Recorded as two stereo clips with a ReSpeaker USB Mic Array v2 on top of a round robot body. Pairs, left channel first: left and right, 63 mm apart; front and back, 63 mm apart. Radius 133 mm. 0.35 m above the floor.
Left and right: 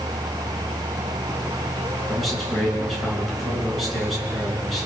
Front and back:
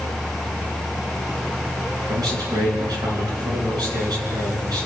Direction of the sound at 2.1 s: Straight behind.